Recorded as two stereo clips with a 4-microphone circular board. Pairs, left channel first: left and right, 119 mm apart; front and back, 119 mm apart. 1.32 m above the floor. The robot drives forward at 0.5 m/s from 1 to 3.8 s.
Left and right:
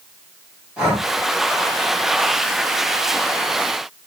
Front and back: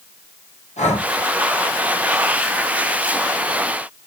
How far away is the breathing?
About 1.6 m.